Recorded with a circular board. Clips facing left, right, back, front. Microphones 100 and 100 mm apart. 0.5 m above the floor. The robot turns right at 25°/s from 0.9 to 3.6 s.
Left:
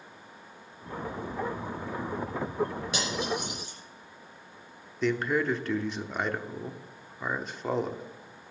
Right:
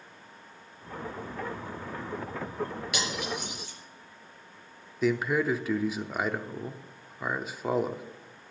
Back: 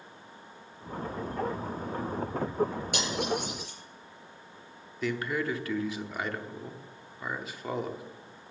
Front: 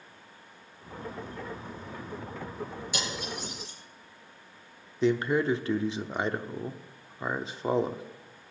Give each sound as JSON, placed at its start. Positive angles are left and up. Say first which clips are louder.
{"t": 2.9, "sound": "cutlery clinking", "louder": "left 2 dB, back 5 dB", "azimuth_deg": 150, "distance_m": 5.5}
{"t": 5.0, "sound": "a man speaking", "louder": "right 1 dB, front 6 dB", "azimuth_deg": -10, "distance_m": 0.7}